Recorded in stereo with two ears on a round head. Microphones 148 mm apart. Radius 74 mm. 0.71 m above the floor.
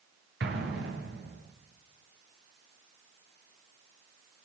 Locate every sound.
0.4 s an explosion: 80° right, 8 m